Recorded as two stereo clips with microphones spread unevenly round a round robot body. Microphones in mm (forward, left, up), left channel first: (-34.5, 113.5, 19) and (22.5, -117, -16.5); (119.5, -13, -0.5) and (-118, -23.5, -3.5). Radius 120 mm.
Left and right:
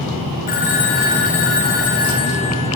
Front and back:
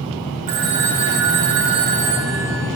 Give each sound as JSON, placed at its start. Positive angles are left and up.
{"t": 0.5, "sound": "a phone ringing", "azimuth_deg": 160, "distance_m": 5.0}